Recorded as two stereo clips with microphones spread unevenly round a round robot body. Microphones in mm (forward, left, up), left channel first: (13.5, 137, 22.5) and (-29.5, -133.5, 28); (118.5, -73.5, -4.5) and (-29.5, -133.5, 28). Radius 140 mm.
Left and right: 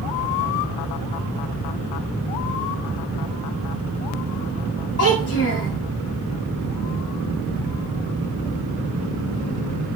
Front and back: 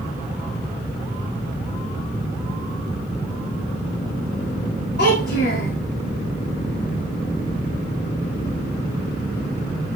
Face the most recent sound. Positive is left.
turn(degrees=30)